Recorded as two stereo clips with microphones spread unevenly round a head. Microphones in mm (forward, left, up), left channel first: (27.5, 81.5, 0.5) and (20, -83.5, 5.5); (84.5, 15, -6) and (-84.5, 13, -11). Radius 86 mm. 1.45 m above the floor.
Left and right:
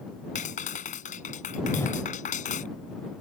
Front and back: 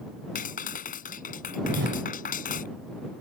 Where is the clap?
40° left.